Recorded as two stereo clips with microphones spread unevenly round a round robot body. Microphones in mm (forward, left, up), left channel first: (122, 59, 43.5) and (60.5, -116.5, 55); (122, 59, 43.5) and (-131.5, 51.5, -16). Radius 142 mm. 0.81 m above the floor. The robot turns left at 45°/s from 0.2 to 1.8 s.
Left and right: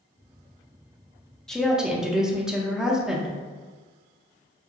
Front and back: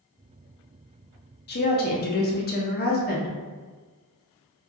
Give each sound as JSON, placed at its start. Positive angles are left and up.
{"t": 1.5, "sound": "a woman speaking", "azimuth_deg": -5, "distance_m": 0.6}